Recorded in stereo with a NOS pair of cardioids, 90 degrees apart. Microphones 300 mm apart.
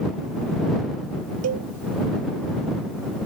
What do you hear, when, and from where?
1.4 s a cowbell: 60° right